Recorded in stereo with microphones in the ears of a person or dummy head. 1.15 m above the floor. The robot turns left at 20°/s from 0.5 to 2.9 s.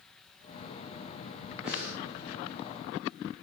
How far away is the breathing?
About 1.4 m.